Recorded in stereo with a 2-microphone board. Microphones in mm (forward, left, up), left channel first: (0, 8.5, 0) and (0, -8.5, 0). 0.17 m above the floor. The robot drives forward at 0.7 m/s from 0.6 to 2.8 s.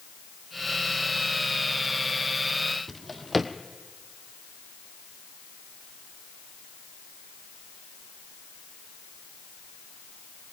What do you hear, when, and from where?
2.9 s a drawer: centre (ahead or behind), 1.5 m